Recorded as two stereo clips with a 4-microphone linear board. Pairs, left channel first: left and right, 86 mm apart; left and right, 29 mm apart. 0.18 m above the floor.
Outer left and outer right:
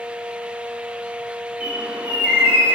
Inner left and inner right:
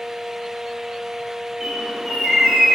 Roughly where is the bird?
Centre.